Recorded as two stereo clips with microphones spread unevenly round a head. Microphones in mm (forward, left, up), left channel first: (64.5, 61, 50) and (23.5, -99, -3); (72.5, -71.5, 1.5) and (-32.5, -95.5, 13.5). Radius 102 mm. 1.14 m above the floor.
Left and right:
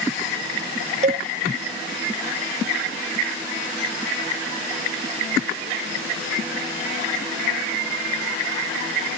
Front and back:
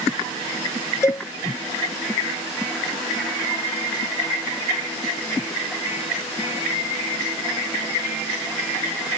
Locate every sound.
1.0 s a cowbell: 55° right